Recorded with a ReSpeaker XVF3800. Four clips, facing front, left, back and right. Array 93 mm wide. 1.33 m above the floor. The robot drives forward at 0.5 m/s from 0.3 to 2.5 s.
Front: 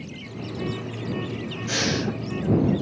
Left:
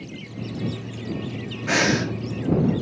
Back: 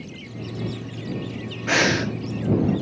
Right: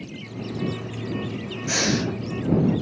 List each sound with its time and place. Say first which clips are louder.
1.7 s breathing: left 3 dB, back 6 dB; 145° left, 0.5 m; by 2.1 s 155° left, 0.7 m